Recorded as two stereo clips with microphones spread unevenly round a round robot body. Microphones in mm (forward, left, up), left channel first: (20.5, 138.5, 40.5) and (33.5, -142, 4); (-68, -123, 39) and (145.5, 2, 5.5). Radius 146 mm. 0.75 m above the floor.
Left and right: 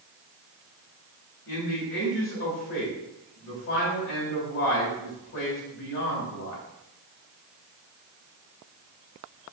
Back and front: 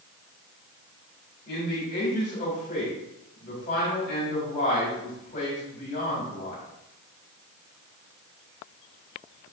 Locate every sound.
1.5 s a man speaking: 145° left, 4 m